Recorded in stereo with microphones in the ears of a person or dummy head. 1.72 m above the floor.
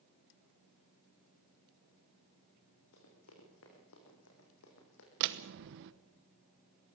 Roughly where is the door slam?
Right.